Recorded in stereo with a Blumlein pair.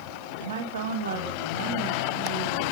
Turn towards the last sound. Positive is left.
turn(degrees=-60)